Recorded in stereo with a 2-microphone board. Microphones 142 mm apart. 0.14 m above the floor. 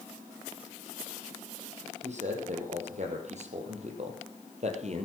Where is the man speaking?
55° right (ahead or behind), 5 m.